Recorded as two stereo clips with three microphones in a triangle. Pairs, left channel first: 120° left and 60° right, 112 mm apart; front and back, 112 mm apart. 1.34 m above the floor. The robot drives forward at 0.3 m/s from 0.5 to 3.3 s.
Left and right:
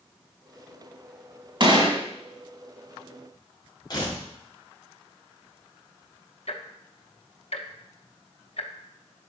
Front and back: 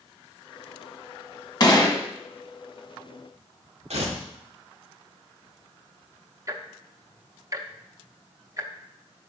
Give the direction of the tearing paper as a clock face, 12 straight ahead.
6 o'clock.